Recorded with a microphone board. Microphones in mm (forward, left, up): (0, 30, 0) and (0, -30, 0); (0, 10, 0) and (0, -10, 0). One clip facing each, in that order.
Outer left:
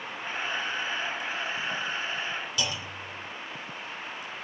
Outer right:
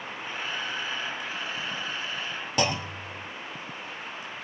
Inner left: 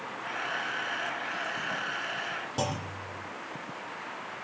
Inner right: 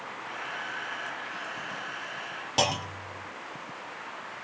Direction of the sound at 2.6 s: 50° right (ahead or behind).